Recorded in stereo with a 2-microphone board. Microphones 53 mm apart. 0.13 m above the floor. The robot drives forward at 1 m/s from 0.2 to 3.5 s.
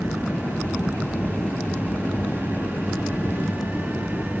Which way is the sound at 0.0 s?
65° left (ahead or behind).